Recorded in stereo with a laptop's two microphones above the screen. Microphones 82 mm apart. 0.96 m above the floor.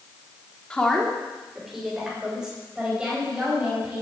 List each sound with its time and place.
0.7 s a woman speaking: 10° left (ahead or behind), 1.7 m; by 4.0 s 15° right (ahead or behind), 5.5 m